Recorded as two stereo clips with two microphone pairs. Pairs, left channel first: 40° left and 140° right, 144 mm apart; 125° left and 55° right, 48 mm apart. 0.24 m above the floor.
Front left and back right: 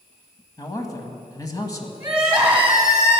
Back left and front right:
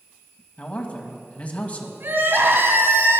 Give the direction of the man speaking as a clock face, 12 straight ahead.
9 o'clock.